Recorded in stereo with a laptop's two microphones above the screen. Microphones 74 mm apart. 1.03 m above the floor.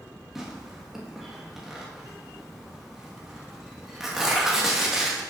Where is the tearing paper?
5° right (ahead or behind), 1.1 m.